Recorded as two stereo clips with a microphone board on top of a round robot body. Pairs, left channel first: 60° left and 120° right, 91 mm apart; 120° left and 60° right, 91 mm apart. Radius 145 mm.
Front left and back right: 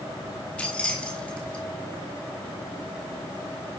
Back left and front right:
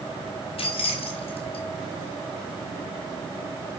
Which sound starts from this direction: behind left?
Keys jangling, at 0.6 s.